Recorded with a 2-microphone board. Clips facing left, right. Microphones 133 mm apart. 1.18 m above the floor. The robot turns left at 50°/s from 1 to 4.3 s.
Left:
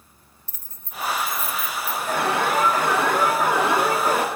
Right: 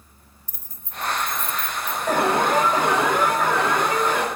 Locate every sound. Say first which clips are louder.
0.5 s keys jangling: left 1 dB; 15° right (ahead or behind), 0.7 m; by 2.0 s 35° left (ahead or behind), 0.7 m
2.1 s an alarm: right 3 dB; 120° right, 1.7 m; by 4.2 s 130° left, 1.7 m